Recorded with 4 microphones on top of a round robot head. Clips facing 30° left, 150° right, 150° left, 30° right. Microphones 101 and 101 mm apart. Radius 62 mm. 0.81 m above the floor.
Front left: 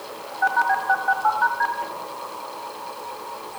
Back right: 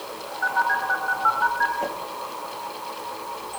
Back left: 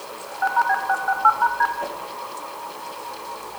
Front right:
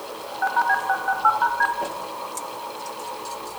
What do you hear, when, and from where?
0.4 s a phone buzzing: 55° left, 4.5 m
1.8 s a whoosh: 90° right, 4.5 m